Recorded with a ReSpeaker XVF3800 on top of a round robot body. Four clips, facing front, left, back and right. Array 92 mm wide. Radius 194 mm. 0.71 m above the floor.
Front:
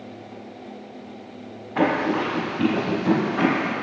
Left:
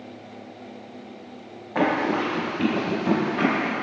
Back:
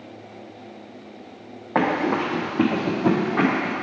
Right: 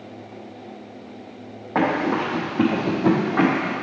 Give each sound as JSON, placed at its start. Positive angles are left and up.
{"t": 1.8, "sound": "running footsteps", "azimuth_deg": -155, "distance_m": 1.7}